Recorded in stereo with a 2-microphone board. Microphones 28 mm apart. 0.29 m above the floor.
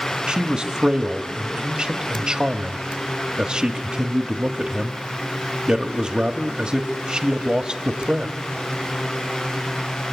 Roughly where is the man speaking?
Right.